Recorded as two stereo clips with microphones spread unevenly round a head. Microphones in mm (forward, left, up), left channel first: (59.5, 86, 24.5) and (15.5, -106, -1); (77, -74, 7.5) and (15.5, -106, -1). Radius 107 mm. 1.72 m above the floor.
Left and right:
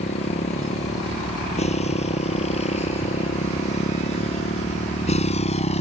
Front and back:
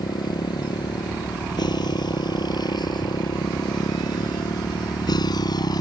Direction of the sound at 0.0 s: 20° left.